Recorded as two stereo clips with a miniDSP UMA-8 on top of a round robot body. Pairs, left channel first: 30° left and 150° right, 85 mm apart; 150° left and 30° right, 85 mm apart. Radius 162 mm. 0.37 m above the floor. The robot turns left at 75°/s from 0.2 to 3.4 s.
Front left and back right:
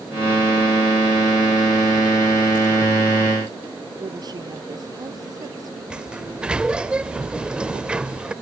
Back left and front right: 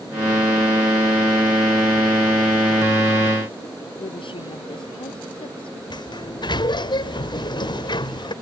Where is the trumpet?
I don't hear a trumpet.